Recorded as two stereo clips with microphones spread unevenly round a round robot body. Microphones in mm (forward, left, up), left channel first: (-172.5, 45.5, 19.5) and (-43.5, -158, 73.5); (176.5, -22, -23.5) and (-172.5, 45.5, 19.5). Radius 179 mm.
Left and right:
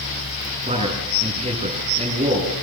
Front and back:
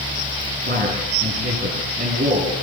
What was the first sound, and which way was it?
A man speaking, 120° right.